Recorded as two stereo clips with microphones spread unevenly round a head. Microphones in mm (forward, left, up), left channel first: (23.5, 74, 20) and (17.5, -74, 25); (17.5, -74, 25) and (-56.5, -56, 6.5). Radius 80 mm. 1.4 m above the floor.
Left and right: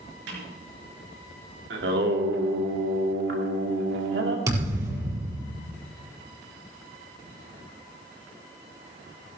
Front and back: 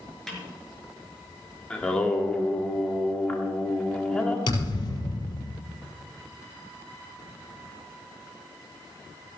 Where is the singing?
90° right, 2 m.